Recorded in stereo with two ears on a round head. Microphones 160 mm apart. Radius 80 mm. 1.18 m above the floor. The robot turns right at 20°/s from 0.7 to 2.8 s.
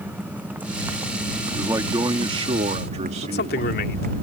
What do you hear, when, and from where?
0.0 s a motorcycle: 10° right (ahead or behind); by 4.2 s 50° right (ahead or behind)
1.6 s a man speaking: 15° right (ahead or behind); by 3.8 s 40° right (ahead or behind)
3.2 s a man speaking: 60° left (ahead or behind)